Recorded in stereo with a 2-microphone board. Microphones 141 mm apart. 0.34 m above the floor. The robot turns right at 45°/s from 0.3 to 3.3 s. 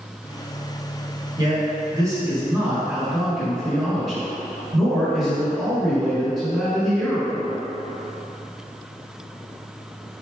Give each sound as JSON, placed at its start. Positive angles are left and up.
{"t": 1.4, "sound": "a man speaking", "side_deg": -30, "distance_m": 1.5}